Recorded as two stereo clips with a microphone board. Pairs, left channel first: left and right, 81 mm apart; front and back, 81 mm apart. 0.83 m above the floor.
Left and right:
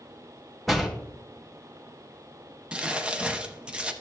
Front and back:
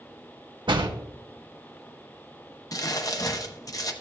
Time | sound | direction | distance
0.7 | a door slam | straight behind | 1.1 m
2.7 | crumpling | 20° right | 0.8 m